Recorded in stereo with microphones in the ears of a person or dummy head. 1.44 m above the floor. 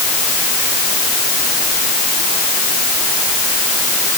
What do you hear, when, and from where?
Only background noise.